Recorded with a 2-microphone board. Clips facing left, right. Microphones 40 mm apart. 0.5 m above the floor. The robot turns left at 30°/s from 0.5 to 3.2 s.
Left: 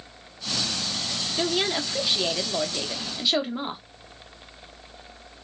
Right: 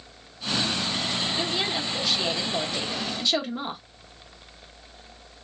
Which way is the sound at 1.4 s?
20° left (ahead or behind).